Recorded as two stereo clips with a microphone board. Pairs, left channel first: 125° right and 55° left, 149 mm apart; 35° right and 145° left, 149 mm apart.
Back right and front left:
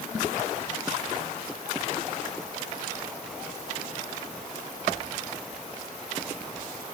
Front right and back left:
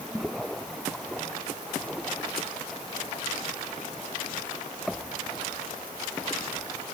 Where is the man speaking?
I don't hear a man speaking.